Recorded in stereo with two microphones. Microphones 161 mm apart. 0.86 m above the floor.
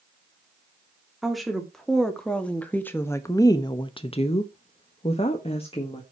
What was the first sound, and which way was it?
A woman speaking, centre (ahead or behind).